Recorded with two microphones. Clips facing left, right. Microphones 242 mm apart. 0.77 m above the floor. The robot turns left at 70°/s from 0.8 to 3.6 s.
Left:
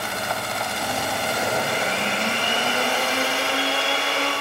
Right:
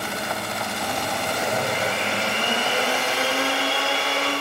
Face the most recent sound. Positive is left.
turn(degrees=-130)